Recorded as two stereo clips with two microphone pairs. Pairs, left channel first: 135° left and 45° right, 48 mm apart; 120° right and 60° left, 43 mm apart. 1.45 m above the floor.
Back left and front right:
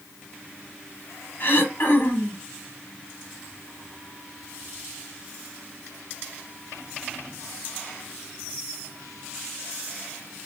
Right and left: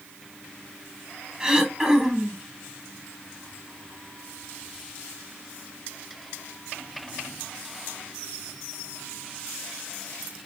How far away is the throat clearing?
About 1.1 m.